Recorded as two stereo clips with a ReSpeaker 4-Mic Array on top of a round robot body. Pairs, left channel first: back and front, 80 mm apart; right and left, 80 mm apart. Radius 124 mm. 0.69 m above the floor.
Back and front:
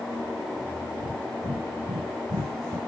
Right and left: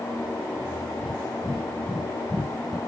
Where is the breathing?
Straight ahead, 1.5 m.